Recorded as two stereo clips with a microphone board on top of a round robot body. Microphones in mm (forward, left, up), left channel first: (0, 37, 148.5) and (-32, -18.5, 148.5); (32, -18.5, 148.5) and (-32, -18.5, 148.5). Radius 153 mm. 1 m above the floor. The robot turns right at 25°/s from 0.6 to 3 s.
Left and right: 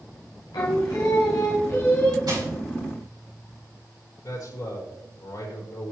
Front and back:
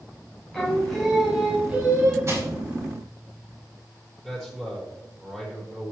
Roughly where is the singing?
Left.